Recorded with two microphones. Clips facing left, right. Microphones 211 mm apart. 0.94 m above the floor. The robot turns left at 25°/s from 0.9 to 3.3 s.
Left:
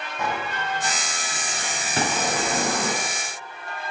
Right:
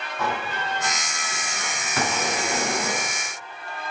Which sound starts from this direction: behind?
A sliding door, at 0.2 s.